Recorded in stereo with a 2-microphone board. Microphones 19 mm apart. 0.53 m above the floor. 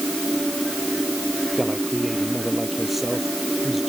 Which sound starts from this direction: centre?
A man speaking, at 1.6 s.